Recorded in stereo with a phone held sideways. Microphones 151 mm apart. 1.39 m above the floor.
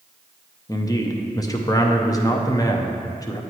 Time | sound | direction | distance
0.7 | a man speaking | 25° left (ahead or behind) | 0.7 m